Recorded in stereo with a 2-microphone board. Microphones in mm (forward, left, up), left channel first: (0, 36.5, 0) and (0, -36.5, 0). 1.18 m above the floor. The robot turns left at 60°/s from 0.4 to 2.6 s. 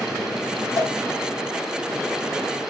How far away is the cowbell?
About 1.1 m.